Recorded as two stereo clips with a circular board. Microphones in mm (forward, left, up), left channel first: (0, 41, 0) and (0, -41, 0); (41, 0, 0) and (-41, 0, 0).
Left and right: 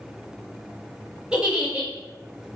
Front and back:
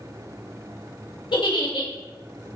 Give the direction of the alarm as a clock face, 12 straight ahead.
No alarm in this recording.